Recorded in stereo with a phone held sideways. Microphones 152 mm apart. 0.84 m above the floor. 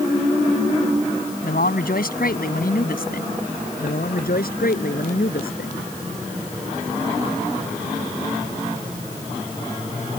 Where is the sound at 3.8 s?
80° left.